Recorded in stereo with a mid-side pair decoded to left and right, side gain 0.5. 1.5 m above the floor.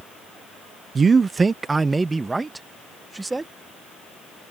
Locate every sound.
0.9 s a man speaking: 35° right; by 3.5 s 15° right